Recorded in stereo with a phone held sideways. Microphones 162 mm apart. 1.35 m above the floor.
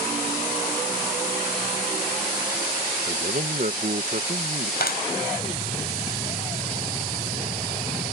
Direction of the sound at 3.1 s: 55° right (ahead or behind).